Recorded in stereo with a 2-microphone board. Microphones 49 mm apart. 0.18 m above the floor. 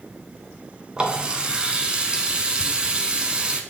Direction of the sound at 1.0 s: 20° right (ahead or behind).